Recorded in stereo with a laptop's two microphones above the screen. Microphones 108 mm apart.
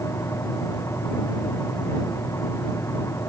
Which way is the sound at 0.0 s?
25° left (ahead or behind).